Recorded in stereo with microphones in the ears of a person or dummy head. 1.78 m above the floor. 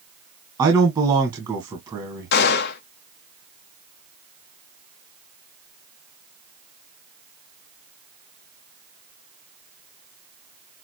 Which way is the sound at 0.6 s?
25° right (ahead or behind).